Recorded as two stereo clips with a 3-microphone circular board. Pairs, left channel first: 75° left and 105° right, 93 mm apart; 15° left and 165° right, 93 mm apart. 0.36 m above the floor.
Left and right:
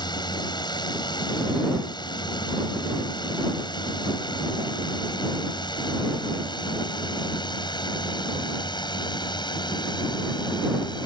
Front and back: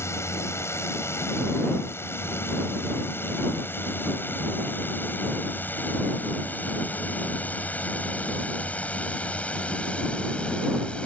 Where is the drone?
65° left; by 11.1 s 90° left.